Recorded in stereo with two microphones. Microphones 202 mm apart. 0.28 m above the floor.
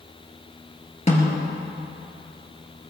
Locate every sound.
1.1 s a snare drum: 35° left (ahead or behind), 3.5 m